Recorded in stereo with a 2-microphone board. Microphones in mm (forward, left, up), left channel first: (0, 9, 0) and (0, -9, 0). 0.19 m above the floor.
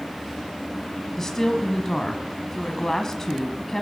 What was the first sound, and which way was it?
A woman speaking, 25° left (ahead or behind).